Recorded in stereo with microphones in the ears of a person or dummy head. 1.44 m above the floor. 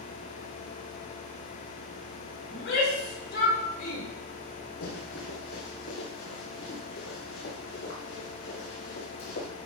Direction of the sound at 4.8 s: 50° left (ahead or behind).